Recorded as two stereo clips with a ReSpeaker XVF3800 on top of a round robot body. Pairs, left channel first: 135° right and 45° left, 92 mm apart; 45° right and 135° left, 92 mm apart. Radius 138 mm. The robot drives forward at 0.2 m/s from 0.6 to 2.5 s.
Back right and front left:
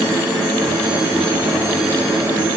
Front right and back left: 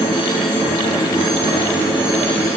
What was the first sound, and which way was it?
Only background noise.